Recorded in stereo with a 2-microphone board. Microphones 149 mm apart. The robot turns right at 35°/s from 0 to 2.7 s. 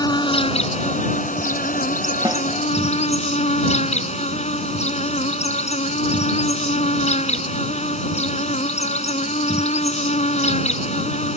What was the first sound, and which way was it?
An insect, 30° left.